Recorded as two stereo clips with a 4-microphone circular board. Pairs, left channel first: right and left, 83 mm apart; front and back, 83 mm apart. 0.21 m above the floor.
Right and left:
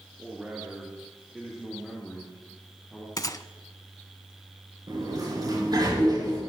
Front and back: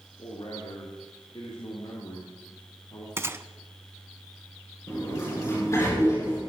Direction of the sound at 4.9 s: 55° left.